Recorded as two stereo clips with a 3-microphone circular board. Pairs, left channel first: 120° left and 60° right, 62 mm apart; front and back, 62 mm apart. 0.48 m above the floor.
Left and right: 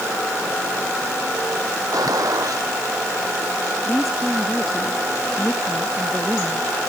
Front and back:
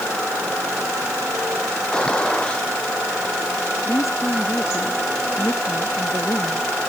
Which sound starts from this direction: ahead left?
A woman speaking, at 3.9 s.